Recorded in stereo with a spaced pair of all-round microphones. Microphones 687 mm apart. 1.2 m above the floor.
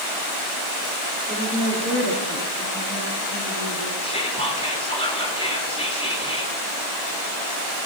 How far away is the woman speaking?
About 4 m.